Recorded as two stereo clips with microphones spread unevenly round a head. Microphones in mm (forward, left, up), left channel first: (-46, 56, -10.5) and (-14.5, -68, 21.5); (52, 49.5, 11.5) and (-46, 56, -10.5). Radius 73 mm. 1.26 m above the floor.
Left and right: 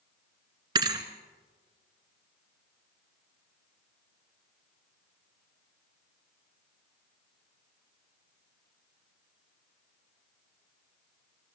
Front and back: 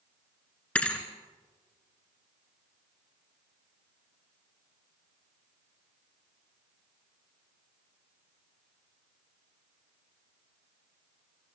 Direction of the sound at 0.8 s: 65° right.